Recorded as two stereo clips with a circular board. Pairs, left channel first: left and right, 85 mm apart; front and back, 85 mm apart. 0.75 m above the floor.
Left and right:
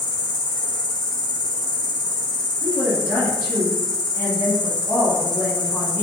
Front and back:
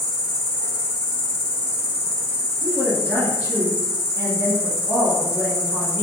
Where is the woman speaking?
40° left, 1.4 m.